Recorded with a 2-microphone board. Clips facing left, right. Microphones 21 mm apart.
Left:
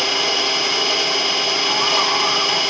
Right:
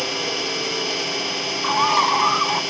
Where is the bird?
30° right (ahead or behind), 1.7 m.